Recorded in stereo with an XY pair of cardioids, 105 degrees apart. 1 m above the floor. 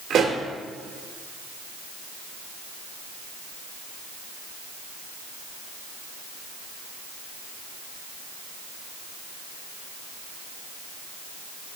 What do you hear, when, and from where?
0.1 s a pop: 65° right, 1.6 m